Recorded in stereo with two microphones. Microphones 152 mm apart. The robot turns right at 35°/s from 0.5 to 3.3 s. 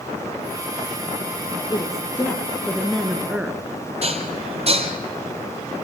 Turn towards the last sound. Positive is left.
turn(degrees=-45)  # may be behind; listen again after turning